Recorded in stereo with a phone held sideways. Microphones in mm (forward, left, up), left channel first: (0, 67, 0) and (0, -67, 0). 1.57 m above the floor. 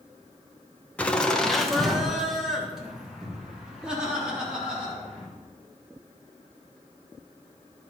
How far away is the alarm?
No alarm in this recording.